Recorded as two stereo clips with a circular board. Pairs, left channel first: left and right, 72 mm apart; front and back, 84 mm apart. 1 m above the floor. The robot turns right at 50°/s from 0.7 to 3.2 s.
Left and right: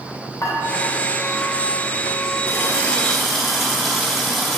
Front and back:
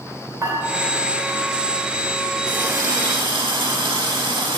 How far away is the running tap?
About 1.5 m.